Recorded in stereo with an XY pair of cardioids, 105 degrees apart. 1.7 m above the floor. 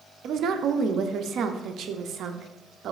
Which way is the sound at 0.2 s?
65° right.